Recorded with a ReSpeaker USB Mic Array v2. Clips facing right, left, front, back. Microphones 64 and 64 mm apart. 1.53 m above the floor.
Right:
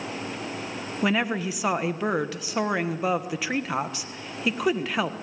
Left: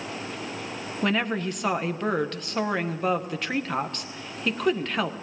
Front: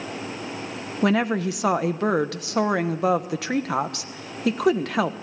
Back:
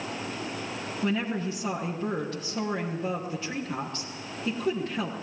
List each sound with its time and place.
1.0 s a woman speaking: 10° right, 1.2 m